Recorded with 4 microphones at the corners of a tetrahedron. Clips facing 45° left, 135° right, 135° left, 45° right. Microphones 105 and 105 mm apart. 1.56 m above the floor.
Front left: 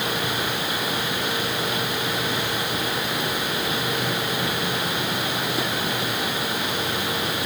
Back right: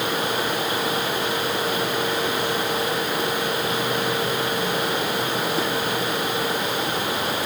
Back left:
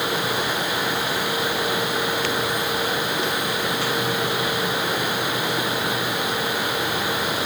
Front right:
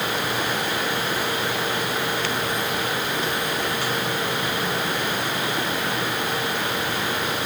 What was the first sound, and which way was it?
Only background noise.